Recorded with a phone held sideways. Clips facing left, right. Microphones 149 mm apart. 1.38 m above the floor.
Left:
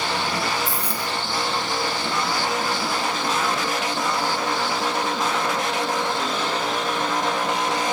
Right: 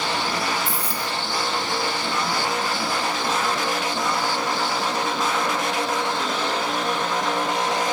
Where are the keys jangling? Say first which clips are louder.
Even; 55° right (ahead or behind), 0.9 m.